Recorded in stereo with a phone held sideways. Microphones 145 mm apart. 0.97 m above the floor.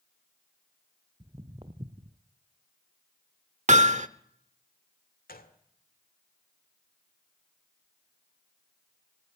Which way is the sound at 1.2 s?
35° right (ahead or behind).